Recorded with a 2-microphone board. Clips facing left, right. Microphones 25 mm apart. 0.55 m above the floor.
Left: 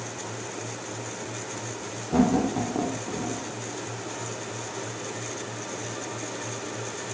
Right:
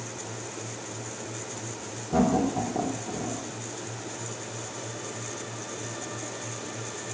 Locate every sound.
2.1 s laughter: 15° left (ahead or behind), 2 m